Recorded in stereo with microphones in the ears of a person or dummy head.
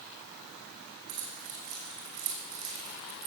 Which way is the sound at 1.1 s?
65° right (ahead or behind).